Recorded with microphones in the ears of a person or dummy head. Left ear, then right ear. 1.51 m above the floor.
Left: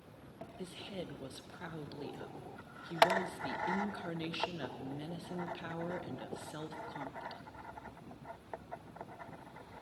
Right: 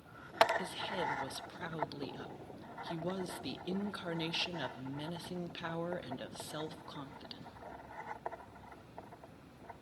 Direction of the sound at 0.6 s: 20° right (ahead or behind).